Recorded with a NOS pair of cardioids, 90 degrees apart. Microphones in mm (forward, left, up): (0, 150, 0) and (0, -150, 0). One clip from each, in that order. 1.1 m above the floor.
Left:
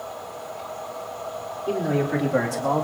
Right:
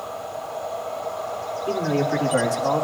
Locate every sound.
1.7 s a man speaking: 5° right, 3.5 m; by 2.8 s 10° left, 1.9 m